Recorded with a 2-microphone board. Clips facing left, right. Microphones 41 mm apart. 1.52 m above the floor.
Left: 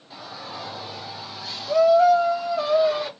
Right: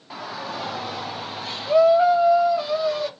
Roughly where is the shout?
Right.